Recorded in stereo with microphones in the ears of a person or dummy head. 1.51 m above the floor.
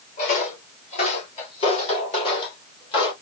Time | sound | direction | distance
0.2 | footsteps | 45° left (ahead or behind) | 2 m